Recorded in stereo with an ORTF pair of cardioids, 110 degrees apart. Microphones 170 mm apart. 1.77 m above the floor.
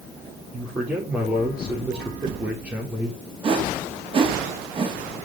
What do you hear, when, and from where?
0.5 s a man speaking: 5° right, 6 m
3.4 s a whoosh: 30° right, 4.5 m